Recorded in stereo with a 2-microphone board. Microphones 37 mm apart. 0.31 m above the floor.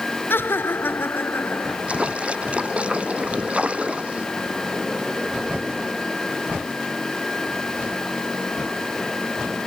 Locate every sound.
0.3 s laughter: 75° left (ahead or behind); by 1.8 s 65° left (ahead or behind)
1.9 s a splash: 35° right (ahead or behind)